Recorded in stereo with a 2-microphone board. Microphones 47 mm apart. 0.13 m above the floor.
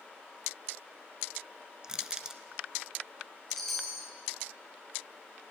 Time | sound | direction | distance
1.8 | crushing | 15° right (ahead or behind) | 1.0 m
3.5 | a chime | 5° left (ahead or behind) | 2 m